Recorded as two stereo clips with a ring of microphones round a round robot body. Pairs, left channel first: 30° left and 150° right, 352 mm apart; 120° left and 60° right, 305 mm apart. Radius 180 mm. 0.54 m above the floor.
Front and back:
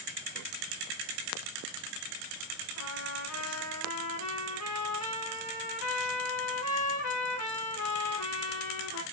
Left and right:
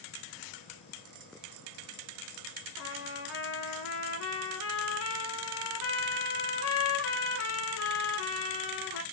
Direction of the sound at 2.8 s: 80° left.